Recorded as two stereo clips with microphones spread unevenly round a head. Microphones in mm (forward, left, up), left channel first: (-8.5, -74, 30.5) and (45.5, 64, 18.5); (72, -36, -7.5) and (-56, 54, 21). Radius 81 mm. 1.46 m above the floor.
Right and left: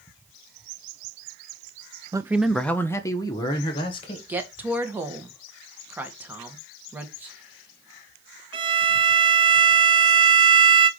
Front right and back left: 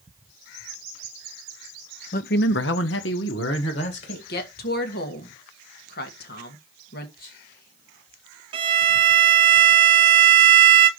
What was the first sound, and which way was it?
A man speaking, straight ahead.